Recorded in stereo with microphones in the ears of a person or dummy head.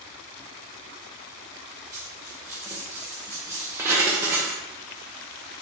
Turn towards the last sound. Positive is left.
turn(degrees=-15)  # may be behind; listen again after turning